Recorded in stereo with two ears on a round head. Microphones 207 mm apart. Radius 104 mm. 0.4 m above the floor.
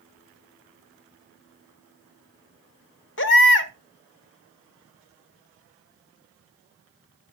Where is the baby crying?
55° left (ahead or behind), 1.3 m.